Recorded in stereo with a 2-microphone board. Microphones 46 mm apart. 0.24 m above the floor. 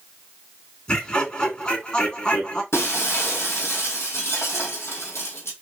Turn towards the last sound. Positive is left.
turn(degrees=60)  # may be behind; listen again after turning